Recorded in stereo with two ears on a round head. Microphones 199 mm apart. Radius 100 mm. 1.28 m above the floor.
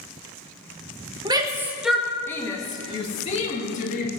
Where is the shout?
20° right (ahead or behind), 1.4 m; by 4.1 s 35° left (ahead or behind), 2.5 m.